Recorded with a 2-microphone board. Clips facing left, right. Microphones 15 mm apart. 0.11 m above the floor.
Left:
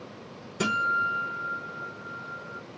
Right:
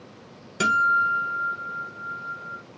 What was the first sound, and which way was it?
A guitar, 45° right (ahead or behind).